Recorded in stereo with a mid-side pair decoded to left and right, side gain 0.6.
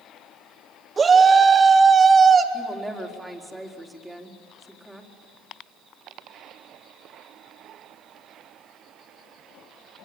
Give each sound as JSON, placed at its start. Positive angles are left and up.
{"t": 1.0, "sound": "a shout", "azimuth_deg": -30, "distance_m": 3.5}
{"t": 2.5, "sound": "a woman speaking", "azimuth_deg": -5, "distance_m": 4.5}